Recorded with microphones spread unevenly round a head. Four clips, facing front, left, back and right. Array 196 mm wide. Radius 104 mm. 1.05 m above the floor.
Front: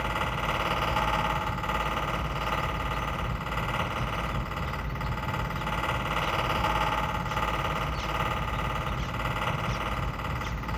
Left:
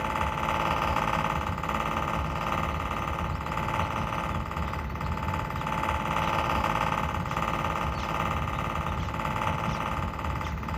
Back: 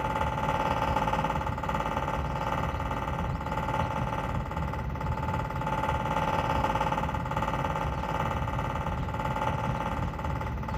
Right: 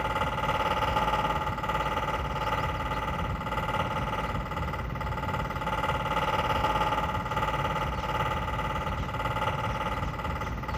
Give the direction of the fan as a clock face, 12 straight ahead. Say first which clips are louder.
Even, back 1 dB; 5 o'clock.